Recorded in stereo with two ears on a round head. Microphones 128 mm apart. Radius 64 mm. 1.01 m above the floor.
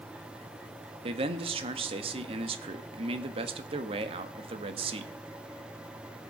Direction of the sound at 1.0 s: 40° right (ahead or behind).